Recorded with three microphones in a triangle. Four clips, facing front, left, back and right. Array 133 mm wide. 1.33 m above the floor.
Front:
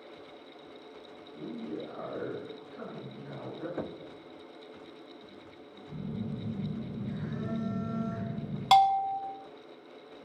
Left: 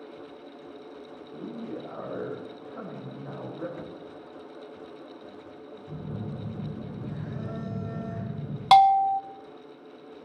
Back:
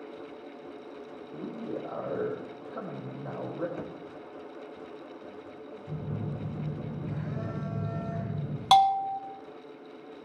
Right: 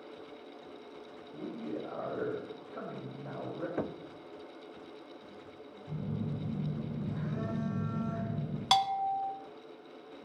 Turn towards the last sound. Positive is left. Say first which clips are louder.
# left 12 dB, back 1 dB
turn(degrees=95)